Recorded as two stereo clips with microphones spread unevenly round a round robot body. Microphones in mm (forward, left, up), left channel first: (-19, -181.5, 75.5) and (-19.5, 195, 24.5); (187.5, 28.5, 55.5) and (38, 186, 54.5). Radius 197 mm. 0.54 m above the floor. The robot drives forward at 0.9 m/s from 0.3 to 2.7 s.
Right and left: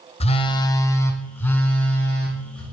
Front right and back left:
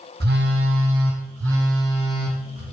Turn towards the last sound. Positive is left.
turn(degrees=-175)